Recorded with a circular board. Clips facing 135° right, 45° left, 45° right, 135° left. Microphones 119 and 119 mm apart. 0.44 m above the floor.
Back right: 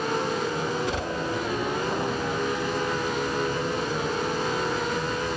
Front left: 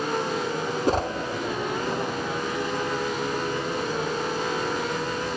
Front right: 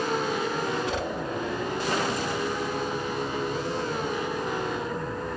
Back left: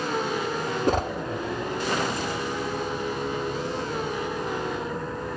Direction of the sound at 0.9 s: 90° left.